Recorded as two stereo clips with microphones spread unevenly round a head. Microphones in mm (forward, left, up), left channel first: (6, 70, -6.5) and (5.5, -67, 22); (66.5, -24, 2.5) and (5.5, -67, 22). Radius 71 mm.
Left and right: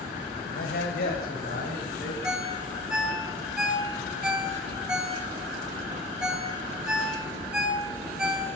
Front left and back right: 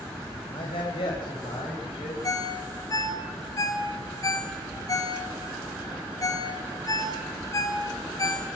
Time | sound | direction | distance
0.5 | a man speaking | 70° left | 4.5 m
2.2 | a ringtone | 5° right | 3.5 m